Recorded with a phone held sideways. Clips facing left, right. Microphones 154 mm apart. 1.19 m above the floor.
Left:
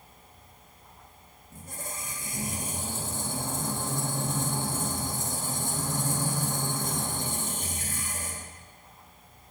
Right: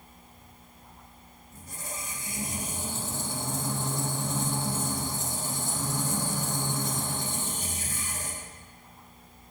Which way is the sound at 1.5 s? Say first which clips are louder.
Left 1 dB; 50° left (ahead or behind).